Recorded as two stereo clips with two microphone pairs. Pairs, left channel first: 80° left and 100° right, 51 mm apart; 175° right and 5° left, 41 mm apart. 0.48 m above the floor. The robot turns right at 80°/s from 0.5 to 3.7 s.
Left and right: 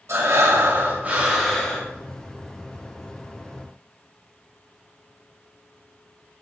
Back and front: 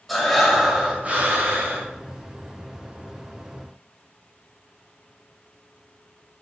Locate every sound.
0.1 s breathing: 90° right, 1.9 m; by 1.9 s 20° left, 1.9 m